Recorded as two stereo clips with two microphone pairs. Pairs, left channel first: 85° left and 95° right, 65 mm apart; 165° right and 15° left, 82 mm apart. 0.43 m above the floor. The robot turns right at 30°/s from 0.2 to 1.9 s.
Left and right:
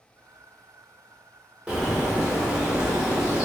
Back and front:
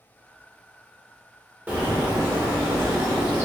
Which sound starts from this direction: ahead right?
A bird, at 1.7 s.